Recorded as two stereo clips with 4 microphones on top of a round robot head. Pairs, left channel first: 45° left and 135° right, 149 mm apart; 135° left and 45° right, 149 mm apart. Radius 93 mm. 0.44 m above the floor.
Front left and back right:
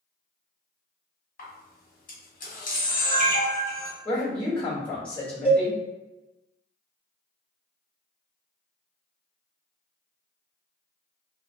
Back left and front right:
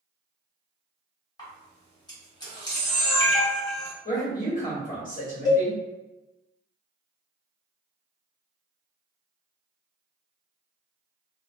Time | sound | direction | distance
1.4 | a camera shutter | 75° left | 1.3 m
4.0 | a woman speaking | 125° left | 2.0 m
5.5 | a cowbell | 160° left | 1.3 m